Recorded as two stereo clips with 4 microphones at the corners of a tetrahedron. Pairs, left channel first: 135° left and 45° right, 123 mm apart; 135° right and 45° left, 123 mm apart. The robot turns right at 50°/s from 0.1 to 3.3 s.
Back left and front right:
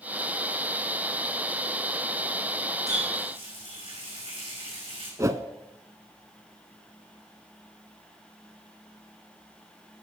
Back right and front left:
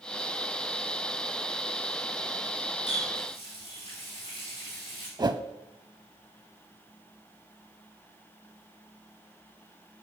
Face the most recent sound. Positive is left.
turn(degrees=0)